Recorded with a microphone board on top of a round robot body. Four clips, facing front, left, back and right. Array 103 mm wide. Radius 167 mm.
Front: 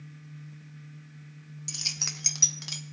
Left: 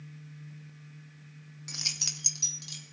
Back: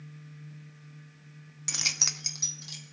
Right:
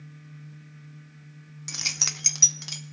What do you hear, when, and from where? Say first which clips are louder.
1.7 s keys jangling: right 7 dB, back 4 dB; 160° right, 0.6 m; by 2.8 s 45° right, 0.8 m